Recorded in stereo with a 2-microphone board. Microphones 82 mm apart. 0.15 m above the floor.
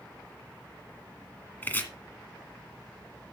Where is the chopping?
25° left (ahead or behind), 1.8 m.